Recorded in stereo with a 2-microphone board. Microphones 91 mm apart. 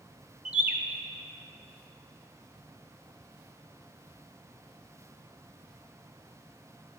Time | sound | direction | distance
0.5 | a bird | 15° right (ahead or behind) | 0.6 m